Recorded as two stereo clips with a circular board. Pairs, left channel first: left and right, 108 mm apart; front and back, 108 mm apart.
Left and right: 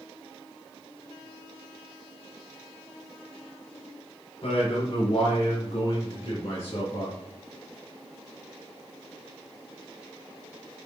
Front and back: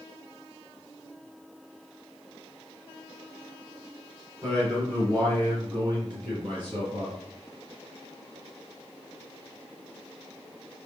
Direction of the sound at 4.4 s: 115° left.